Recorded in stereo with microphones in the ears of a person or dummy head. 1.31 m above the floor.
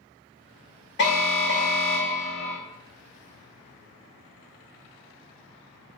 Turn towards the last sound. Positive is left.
turn(degrees=55)  # may be behind; listen again after turning